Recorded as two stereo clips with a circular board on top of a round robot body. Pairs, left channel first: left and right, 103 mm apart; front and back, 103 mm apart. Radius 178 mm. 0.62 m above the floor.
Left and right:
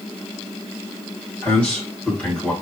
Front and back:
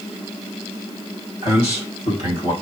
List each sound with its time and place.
1.4 s a man speaking: 10° left, 3.5 m